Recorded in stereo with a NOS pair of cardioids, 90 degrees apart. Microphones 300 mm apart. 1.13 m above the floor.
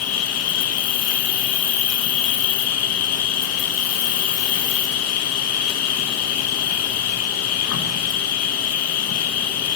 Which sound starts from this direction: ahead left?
An insect, at 0.0 s.